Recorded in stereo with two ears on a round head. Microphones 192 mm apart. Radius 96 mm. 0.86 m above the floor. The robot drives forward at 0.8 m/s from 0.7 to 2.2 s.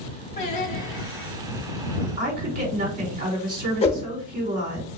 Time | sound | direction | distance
0.4 | singing | 35° left (ahead or behind) | 1.3 m
2.2 | a woman speaking | 35° right (ahead or behind) | 2 m
3.8 | a whoosh | 30° left (ahead or behind) | 0.8 m